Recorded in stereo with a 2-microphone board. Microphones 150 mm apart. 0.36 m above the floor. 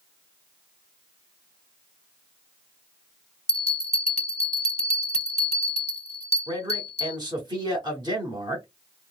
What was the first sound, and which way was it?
A bell, 45° left (ahead or behind).